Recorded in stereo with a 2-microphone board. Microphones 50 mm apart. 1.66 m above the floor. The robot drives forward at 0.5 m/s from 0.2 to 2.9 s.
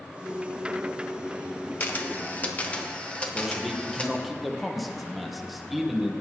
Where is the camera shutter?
40° left (ahead or behind), 0.9 m; by 4.1 s 25° left (ahead or behind), 1.3 m.